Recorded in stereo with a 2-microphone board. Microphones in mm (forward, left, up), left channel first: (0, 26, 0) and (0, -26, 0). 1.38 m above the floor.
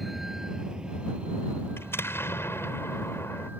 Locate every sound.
0.0 s a vehicle: centre (ahead or behind); by 3.6 s 35° right (ahead or behind)
1.8 s an explosion: 50° left (ahead or behind)